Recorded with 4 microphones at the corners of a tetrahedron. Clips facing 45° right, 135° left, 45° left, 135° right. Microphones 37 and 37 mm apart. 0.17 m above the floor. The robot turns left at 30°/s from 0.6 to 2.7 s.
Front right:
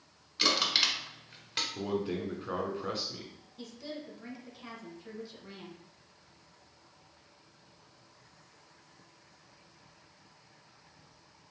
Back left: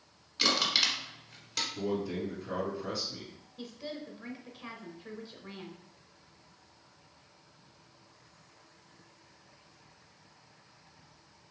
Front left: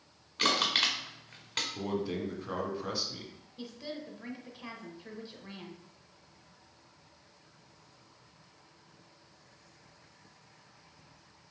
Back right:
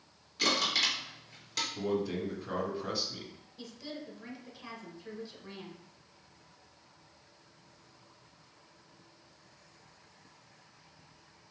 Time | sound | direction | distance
0.4 | crushing | 45° left | 1.3 m
1.8 | a man speaking | 15° right | 1.3 m
3.6 | a woman speaking | 90° left | 1.1 m